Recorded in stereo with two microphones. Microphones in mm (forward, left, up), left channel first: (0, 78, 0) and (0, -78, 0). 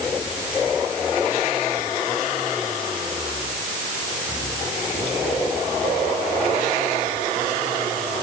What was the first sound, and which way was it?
Only background noise.